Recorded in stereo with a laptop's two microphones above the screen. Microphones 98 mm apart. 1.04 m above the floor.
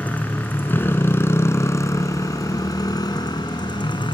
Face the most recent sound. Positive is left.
turn(degrees=50)  # may be behind; listen again after turning